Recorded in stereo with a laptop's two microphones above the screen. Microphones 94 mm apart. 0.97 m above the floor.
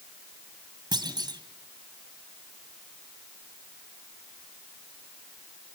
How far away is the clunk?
About 2 m.